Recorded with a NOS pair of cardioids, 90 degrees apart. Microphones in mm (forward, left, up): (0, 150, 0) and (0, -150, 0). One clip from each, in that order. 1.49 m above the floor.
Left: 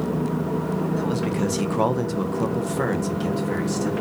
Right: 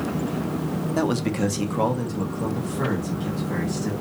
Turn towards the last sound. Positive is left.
turn(degrees=75)